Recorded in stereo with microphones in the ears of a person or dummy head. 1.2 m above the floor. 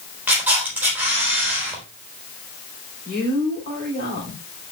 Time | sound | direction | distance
0.3 | a camera shutter | 5° right (ahead or behind) | 3.5 m
3.0 | a woman speaking | 40° left (ahead or behind) | 3.5 m